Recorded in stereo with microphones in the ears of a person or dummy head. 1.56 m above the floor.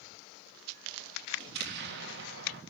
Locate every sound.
1.4 s an explosion: 60° right (ahead or behind), 3 m